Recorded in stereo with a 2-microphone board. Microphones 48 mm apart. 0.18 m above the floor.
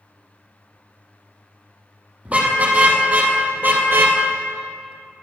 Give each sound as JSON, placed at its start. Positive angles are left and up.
{"t": 2.2, "sound": "a car horn", "side_deg": -30, "distance_m": 3.5}